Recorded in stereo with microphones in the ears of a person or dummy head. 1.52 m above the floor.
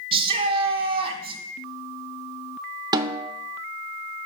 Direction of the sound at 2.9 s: 20° right (ahead or behind).